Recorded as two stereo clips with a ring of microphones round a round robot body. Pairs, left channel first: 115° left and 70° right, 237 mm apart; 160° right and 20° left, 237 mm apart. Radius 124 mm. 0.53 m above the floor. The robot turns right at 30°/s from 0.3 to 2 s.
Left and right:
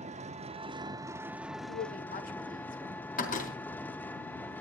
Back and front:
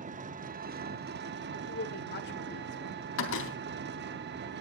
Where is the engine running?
20° right, 0.9 m; by 4.6 s 30° left, 0.9 m.